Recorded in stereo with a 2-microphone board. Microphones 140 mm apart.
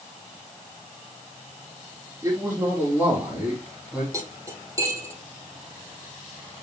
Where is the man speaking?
20° right (ahead or behind), 5 m; by 4.0 s 5° right (ahead or behind), 5 m.